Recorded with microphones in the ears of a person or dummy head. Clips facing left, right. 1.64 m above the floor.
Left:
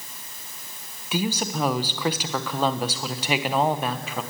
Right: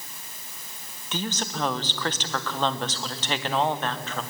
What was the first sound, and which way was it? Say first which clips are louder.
A woman speaking: left 5 dB; 15° left (ahead or behind).